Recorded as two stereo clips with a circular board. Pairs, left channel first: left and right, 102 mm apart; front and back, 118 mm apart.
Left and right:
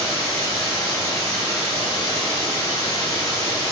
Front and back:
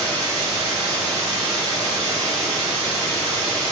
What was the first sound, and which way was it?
Running water, 140° left.